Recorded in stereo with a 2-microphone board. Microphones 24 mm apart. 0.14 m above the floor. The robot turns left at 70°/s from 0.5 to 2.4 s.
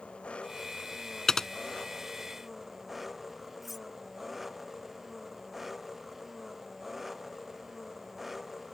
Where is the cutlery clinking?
5° right (ahead or behind).